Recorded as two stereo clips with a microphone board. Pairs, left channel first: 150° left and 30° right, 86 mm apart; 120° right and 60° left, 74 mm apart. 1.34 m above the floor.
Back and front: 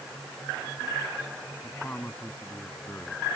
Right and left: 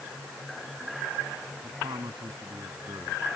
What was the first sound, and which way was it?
A man speaking, 75° left.